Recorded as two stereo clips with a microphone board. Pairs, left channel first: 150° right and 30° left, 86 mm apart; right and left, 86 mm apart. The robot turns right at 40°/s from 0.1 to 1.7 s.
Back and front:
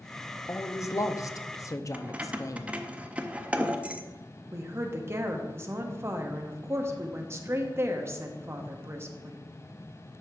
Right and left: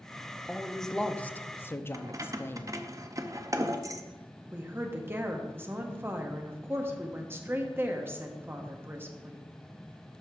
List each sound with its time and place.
0.5 s a man speaking: 175° left, 0.6 m; by 2.8 s 135° right, 0.6 m
1.9 s keys jangling: 95° left, 0.5 m
4.5 s a woman speaking: 55° left, 0.9 m